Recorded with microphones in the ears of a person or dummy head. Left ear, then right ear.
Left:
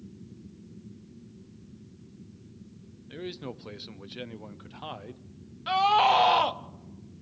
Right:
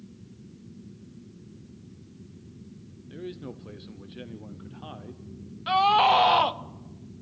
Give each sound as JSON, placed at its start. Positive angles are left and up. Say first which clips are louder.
{"t": 3.1, "sound": "a man speaking", "louder": "left 1 dB", "side_deg": 30, "distance_m": 0.6}
{"t": 5.7, "sound": "a scream", "louder": "right 2 dB", "side_deg": 0, "distance_m": 0.7}